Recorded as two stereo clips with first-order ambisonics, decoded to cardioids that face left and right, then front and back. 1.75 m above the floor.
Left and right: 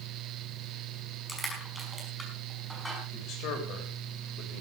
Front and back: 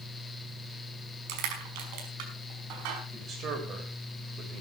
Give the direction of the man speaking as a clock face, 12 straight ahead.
8 o'clock.